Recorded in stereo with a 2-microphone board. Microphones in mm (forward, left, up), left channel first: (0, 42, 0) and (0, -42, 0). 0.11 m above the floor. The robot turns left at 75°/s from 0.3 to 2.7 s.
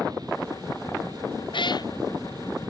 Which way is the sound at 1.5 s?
75° left (ahead or behind).